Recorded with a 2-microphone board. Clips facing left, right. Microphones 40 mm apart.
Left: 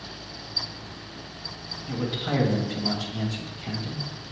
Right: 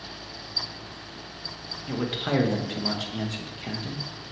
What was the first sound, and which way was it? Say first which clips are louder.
A man speaking: right 1 dB; 45° right (ahead or behind).